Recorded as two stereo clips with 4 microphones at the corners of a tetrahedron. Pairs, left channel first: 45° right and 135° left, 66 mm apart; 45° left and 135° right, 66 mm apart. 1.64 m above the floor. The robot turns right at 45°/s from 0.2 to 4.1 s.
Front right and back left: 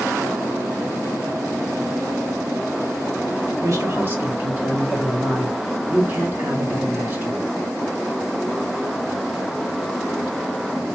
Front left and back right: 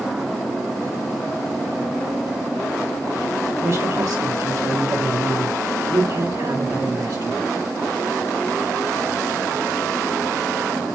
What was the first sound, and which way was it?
A man speaking, 170° left.